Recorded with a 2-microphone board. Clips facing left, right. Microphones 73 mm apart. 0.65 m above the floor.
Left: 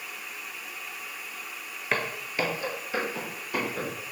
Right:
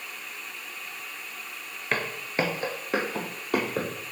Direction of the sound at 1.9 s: 5° left (ahead or behind).